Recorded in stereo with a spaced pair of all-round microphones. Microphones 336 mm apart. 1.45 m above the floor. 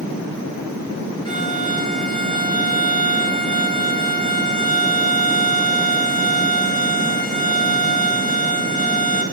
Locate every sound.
1.2 s a violin: 15° left (ahead or behind), 5.5 m